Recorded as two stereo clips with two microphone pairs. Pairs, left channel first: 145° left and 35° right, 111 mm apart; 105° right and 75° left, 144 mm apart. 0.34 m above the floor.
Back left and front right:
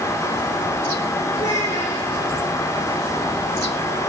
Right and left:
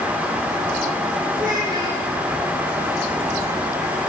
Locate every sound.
1.4 s a child speaking: 140° left, 7.5 m